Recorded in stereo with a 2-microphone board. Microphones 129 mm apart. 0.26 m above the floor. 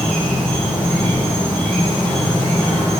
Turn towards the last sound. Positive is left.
turn(degrees=10)  # may be behind; listen again after turning